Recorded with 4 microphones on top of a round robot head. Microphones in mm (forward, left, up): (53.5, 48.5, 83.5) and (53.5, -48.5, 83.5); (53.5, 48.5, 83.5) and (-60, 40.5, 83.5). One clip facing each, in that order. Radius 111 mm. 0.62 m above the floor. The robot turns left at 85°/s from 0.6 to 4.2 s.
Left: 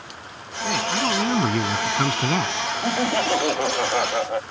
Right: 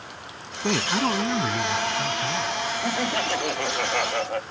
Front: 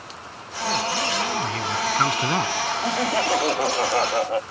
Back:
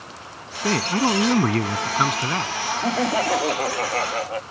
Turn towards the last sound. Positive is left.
turn(degrees=25)